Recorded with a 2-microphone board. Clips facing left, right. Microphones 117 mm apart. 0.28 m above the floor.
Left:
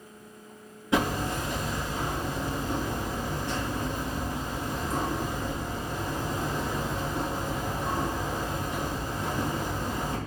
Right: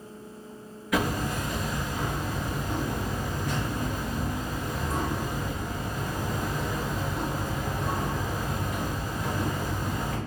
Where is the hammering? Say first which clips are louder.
Left 1 dB; 30° left (ahead or behind), 1.9 m.